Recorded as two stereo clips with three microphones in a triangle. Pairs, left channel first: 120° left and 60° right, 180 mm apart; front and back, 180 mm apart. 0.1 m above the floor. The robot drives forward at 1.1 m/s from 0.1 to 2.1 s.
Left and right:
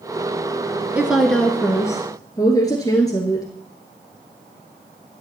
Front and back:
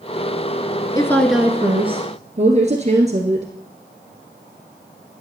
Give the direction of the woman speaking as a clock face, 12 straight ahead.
12 o'clock.